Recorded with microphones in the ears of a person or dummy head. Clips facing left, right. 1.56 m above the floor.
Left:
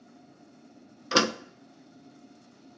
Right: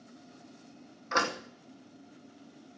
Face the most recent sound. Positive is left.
turn(degrees=45)  # may be behind; listen again after turning